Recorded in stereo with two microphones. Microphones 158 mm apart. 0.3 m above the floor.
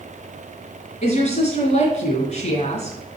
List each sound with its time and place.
1.0 s a woman speaking: 50° left (ahead or behind), 2.5 m